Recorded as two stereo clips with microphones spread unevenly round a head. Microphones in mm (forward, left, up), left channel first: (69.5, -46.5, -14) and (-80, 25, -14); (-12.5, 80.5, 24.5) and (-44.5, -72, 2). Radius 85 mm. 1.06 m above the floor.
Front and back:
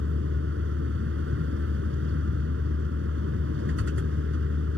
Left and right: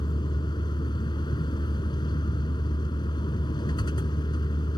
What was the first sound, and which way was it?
A vehicle, 140° left.